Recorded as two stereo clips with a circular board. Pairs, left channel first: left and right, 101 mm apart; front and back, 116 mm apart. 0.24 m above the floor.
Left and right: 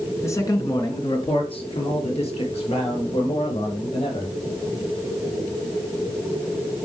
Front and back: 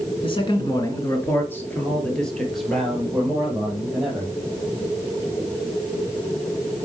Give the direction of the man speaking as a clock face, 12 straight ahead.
11 o'clock.